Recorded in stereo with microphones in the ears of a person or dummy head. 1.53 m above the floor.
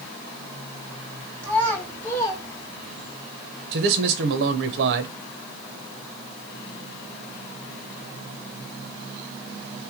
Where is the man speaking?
70° right (ahead or behind), 0.9 m.